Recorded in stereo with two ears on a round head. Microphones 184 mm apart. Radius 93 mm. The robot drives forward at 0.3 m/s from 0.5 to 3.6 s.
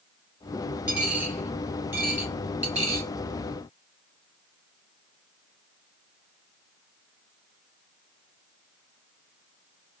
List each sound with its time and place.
0.9 s a dropped coin: 10° right (ahead or behind), 1.4 m; by 3.1 s 15° right (ahead or behind), 0.8 m